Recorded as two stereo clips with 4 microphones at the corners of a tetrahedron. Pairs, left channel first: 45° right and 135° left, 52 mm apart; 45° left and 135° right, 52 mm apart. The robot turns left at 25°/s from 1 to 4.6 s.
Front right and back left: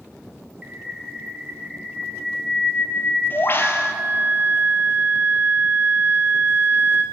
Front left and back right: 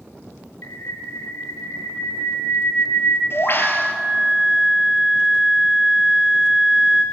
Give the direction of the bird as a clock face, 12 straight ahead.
10 o'clock.